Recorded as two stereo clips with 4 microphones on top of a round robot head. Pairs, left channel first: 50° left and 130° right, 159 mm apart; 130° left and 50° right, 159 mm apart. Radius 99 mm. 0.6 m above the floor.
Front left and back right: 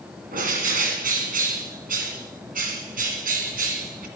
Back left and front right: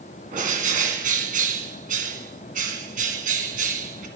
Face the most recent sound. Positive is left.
turn(degrees=-90)